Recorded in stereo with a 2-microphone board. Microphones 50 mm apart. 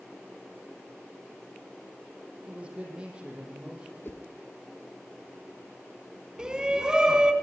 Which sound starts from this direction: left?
A whoosh, at 4.0 s.